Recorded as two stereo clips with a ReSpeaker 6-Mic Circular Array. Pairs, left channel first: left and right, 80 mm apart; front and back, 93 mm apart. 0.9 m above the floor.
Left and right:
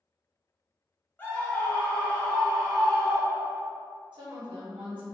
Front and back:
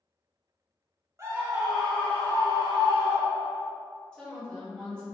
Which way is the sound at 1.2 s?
145° left.